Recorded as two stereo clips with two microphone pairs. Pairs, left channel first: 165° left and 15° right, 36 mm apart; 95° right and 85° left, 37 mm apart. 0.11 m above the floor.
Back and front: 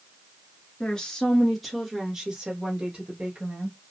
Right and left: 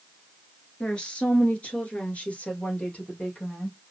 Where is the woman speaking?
140° right, 1.5 m; by 3.8 s 55° right, 2.5 m.